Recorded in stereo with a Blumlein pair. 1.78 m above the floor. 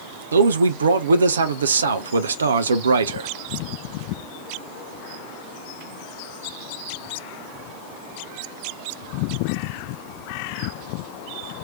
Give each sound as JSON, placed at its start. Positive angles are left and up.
{"t": 0.3, "sound": "a man speaking", "azimuth_deg": -70, "distance_m": 0.6}